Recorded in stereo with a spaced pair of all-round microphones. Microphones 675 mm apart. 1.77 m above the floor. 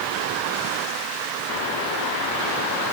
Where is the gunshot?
No gunshot in this recording.